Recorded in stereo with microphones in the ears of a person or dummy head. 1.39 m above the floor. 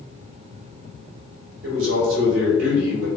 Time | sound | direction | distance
1.6 | a man speaking | 80° right | 2.0 m